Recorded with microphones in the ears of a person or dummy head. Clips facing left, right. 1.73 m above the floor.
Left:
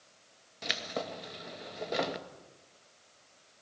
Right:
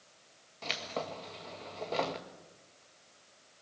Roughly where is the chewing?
I don't hear chewing.